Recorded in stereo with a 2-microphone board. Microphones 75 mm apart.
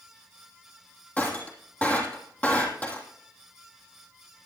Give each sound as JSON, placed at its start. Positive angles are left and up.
{"t": 1.2, "sound": "breaking glass", "side_deg": 20, "distance_m": 3.0}